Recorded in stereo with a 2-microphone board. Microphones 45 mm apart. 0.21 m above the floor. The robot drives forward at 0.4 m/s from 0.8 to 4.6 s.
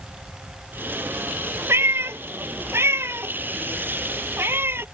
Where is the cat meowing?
75° right (ahead or behind); by 4.8 s 65° right (ahead or behind).